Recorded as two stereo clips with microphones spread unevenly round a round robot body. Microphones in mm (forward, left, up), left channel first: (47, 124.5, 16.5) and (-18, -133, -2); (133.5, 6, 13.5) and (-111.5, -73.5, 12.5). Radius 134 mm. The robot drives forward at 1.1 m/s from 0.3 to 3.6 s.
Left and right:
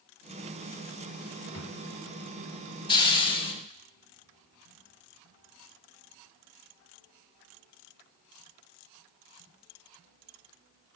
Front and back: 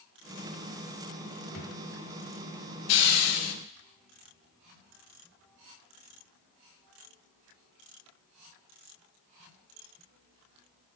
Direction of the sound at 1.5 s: 55° left.